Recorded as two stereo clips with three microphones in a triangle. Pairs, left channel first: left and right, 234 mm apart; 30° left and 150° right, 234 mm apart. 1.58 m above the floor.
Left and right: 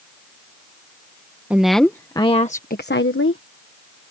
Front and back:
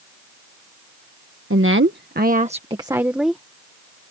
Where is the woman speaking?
175° right; by 3.4 s 115° left.